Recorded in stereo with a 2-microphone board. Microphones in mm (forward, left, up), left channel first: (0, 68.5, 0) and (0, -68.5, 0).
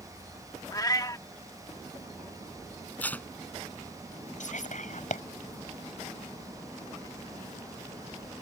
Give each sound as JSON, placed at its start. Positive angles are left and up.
{"t": 0.7, "sound": "a cat meowing", "side_deg": 30}
{"t": 3.0, "sound": "tape being pulled", "side_deg": 10}
{"t": 4.4, "sound": "whispering", "side_deg": 65}